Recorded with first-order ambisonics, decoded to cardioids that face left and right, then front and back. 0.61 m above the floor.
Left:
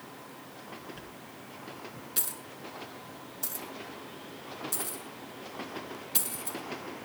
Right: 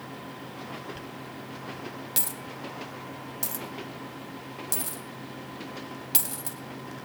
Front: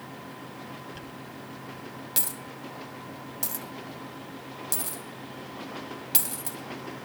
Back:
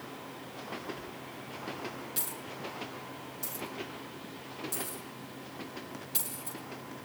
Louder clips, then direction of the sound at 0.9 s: Right 6 dB, front 2 dB; 45° right.